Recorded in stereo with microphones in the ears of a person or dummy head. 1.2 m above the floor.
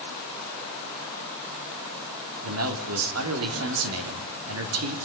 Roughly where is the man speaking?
Right.